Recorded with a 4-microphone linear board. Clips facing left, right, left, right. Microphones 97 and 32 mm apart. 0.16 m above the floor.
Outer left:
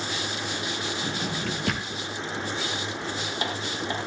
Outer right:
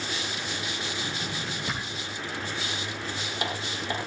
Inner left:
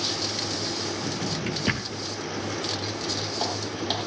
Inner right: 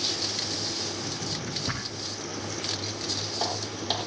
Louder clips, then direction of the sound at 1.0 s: Outer left 4 dB, inner left 4 dB; 70° left (ahead or behind).